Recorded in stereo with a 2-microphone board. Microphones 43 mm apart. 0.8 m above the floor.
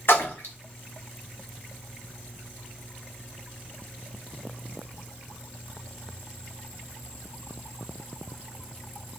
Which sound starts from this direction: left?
A splash, at 0.1 s.